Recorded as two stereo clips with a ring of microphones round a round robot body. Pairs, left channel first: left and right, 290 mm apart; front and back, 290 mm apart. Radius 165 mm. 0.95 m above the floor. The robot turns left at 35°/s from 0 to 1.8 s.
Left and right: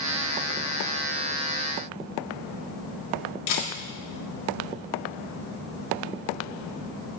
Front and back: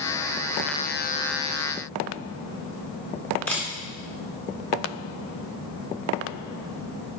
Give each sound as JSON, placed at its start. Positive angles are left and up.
{"t": 3.5, "sound": "a camera shutter", "azimuth_deg": 85, "distance_m": 2.0}